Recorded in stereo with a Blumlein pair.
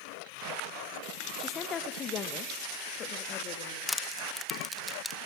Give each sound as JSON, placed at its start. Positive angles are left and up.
{"t": 1.4, "sound": "a woman speaking", "azimuth_deg": 20, "distance_m": 1.7}
{"t": 3.9, "sound": "crushing", "azimuth_deg": 5, "distance_m": 1.3}